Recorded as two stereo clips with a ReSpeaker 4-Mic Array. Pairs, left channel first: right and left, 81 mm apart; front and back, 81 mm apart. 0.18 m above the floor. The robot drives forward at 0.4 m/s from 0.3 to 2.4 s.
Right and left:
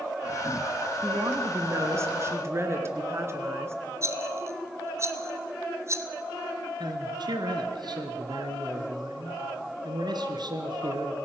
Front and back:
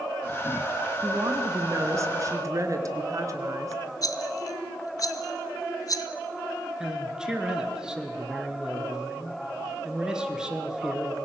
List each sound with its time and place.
1.0 s a woman speaking: 130° left, 2 m; by 3.8 s 140° left, 2.5 m
4.0 s a rattle: 40° left, 1.0 m
6.8 s a man speaking: 100° left, 2.5 m